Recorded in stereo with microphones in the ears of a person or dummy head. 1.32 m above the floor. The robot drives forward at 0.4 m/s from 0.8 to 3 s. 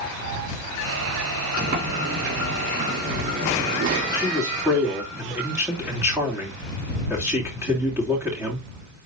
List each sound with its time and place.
1.6 s a sliding door: 55° right (ahead or behind), 4 m; by 4.0 s 60° right (ahead or behind), 3.5 m
4.1 s a man speaking: 10° right (ahead or behind), 3 m